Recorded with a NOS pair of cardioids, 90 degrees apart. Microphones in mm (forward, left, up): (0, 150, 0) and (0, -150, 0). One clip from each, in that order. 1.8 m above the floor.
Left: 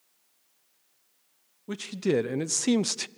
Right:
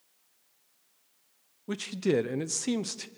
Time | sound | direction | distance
1.7 | a man speaking | 5° right | 1.1 m